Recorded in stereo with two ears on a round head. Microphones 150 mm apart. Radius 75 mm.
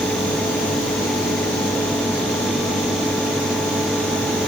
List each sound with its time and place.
Only background noise.